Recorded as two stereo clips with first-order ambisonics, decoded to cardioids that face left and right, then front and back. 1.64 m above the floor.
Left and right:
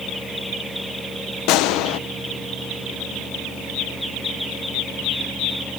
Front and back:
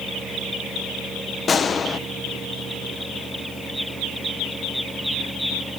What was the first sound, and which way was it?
A gunshot, 70° left.